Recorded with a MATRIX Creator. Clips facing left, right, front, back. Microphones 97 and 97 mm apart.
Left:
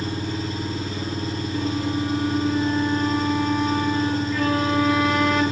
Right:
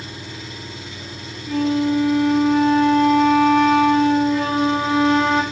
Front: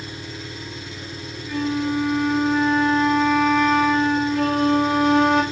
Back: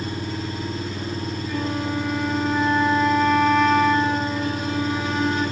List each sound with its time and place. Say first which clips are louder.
0.0 s an engine running: left 8 dB, back 7 dB; 135° left, 3.5 m
1.5 s a flute: right 9 dB, front 5 dB; 90° right, 1.9 m
4.3 s a flute: right 2 dB, front 6 dB; 25° right, 3 m